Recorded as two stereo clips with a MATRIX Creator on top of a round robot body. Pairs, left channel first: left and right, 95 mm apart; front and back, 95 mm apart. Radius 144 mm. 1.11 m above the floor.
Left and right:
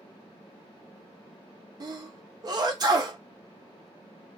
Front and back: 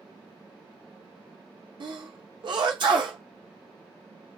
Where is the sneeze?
140° right, 0.6 m.